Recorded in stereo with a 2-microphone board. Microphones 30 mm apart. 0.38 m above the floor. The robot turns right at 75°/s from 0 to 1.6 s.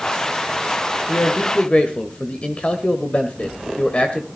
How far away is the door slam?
No door slam in this recording.